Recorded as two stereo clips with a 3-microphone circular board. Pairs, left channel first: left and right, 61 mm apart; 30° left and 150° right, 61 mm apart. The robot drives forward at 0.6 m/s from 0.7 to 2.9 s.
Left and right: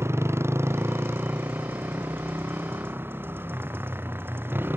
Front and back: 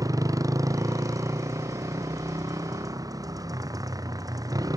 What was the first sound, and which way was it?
A motorcycle, 135° right.